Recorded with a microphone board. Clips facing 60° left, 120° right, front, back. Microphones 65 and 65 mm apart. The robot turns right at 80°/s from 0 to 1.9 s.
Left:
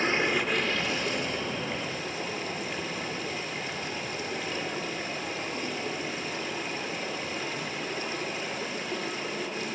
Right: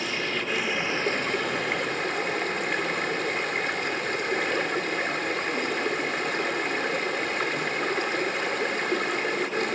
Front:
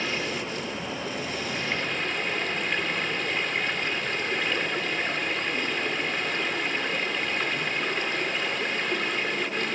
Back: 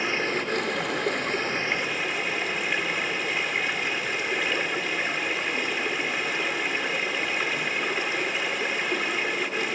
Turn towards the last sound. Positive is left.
turn(degrees=-95)